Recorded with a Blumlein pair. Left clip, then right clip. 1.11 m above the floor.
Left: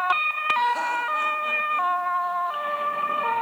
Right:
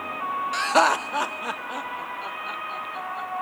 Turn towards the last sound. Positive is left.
turn(degrees=-60)